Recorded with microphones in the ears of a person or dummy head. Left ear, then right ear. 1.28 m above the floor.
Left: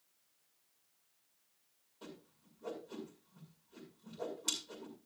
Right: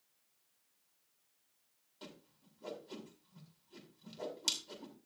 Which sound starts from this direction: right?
A whoosh, at 2.0 s.